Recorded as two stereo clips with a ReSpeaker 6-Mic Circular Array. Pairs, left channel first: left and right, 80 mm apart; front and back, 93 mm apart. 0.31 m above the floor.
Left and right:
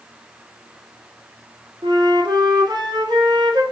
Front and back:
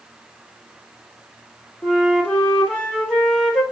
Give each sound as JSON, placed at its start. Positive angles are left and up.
{"t": 1.8, "sound": "a flute", "azimuth_deg": -80, "distance_m": 2.5}